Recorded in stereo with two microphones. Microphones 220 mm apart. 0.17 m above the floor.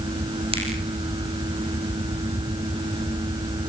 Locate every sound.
0.5 s a finger snap: 25° right (ahead or behind), 7 m